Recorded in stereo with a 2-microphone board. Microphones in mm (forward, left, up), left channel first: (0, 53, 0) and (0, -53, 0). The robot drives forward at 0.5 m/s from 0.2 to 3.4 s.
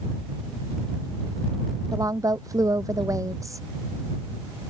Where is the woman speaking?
35° right (ahead or behind); by 3.6 s 30° right (ahead or behind).